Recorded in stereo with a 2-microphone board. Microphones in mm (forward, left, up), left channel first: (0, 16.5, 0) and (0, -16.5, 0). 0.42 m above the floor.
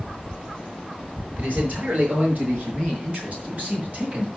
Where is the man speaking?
55° right (ahead or behind), 7 m; by 4.3 s 40° right (ahead or behind), 4.5 m.